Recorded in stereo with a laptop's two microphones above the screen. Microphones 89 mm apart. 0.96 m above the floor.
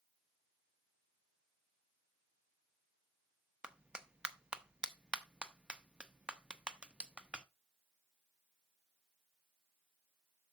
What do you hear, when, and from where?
3.6 s a clap: 10° right (ahead or behind), 0.9 m